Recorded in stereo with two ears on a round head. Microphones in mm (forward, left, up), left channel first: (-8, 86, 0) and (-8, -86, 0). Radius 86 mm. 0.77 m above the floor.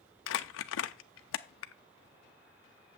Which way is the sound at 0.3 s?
70° left (ahead or behind).